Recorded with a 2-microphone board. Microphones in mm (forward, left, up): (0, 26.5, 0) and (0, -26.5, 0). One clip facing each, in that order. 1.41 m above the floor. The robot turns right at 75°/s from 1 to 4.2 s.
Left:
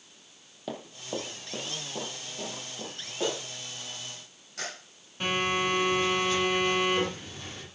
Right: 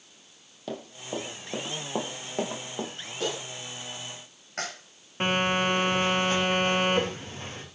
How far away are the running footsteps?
About 2.5 m.